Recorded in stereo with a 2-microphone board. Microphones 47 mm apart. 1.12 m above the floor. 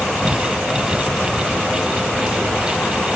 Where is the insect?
15° left (ahead or behind).